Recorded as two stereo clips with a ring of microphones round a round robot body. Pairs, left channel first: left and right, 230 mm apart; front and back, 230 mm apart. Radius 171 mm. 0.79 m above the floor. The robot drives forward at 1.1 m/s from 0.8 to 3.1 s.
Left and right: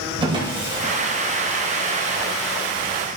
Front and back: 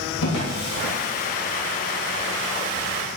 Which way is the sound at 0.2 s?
20° right.